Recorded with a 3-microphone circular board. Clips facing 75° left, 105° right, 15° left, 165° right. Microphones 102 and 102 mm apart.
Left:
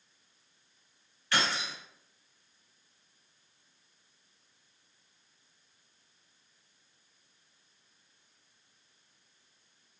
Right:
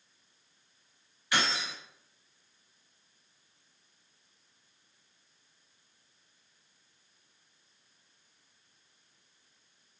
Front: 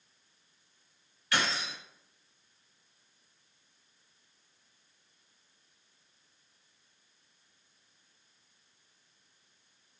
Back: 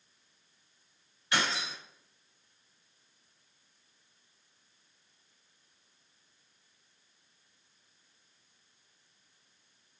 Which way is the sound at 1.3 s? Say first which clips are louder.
Even, even; 150° right.